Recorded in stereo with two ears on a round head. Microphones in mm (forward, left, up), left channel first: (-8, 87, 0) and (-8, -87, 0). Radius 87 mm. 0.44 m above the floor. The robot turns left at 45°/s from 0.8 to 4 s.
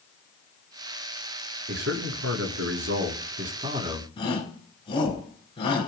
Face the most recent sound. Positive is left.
turn(degrees=25)  # may be behind; listen again after turning